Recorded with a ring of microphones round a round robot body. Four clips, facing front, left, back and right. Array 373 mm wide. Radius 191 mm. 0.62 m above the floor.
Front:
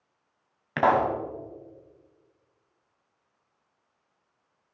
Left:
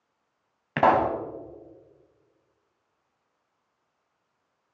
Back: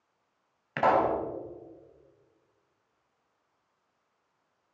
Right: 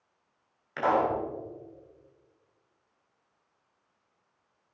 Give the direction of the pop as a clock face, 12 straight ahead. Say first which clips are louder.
Left 5 dB, front 2 dB; 10 o'clock.